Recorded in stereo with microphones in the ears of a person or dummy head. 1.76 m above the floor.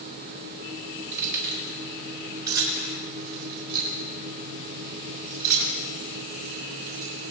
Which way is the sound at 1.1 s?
70° right (ahead or behind).